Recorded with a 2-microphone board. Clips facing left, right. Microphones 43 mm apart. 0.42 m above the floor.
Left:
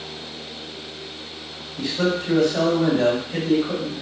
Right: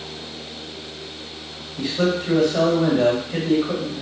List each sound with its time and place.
1.8 s a man speaking: 15° right (ahead or behind), 1.5 m